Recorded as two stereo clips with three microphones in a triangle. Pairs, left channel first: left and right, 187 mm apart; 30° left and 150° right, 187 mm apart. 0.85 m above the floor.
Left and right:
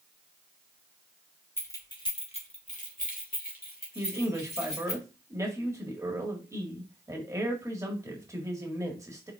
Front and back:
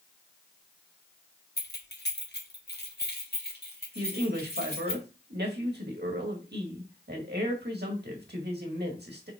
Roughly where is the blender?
No blender in this recording.